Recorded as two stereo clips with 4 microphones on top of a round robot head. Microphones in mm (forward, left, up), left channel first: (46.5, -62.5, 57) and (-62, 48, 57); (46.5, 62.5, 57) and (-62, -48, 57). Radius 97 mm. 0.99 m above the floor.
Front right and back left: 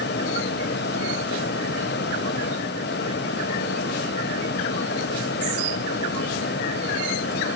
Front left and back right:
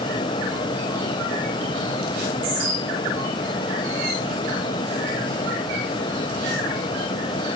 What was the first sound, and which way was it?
Only background noise.